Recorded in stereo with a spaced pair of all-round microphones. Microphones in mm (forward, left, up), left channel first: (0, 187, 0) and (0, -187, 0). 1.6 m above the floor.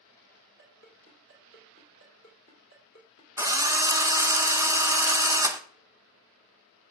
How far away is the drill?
About 0.8 m.